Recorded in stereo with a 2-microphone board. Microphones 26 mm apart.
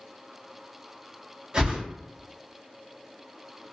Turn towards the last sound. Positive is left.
turn(degrees=-35)  # may be behind; listen again after turning